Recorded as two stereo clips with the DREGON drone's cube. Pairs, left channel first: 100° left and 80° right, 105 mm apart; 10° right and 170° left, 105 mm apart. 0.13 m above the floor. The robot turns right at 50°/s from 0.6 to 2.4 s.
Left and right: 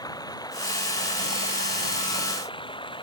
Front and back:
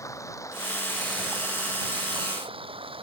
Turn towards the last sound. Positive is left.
turn(degrees=140)